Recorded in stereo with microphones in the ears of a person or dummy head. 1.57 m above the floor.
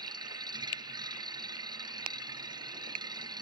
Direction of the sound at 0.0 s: 20° right (ahead or behind).